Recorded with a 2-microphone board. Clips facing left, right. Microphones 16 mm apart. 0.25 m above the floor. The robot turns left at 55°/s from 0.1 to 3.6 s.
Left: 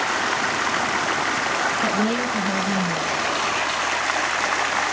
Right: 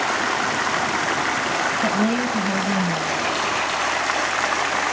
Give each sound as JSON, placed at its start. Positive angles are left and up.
{"t": 1.8, "sound": "a woman speaking", "azimuth_deg": 110, "distance_m": 4.0}